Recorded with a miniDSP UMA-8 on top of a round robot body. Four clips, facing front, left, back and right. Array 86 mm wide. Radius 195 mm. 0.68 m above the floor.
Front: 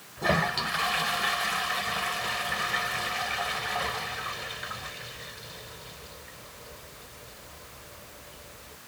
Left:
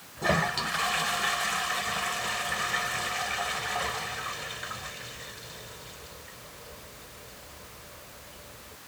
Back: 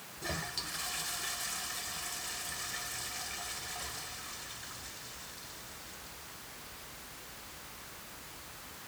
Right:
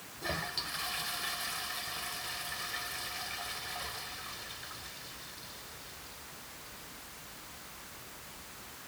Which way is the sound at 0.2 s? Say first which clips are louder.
Left 12 dB, front 15 dB; 40° left.